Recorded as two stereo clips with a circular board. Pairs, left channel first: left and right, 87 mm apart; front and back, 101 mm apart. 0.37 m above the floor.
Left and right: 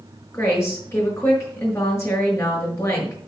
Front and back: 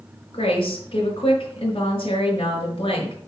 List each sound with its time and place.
0.3 s a woman speaking: 30° left, 5.5 m